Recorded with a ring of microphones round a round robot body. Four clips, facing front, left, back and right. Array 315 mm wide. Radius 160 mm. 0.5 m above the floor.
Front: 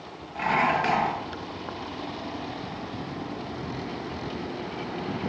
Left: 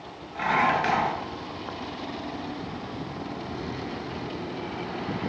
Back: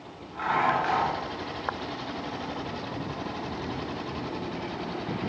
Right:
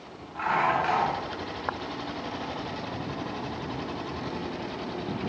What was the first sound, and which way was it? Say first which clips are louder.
Dishes clattering: left 2 dB, front 1 dB; 40° left.